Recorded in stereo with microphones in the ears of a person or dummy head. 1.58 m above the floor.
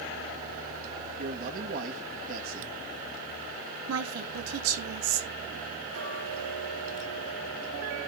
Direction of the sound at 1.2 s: 55° right (ahead or behind).